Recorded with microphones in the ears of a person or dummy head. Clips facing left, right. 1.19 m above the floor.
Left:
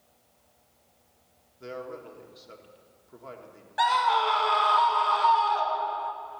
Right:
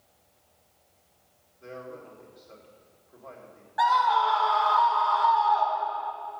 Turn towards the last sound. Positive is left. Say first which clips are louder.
# right 1 dB
turn(degrees=35)  # may be behind; listen again after turning